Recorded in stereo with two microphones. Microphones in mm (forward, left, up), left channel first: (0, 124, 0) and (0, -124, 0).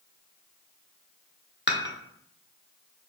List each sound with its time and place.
1.7 s dishes clattering: 45° left (ahead or behind), 0.8 m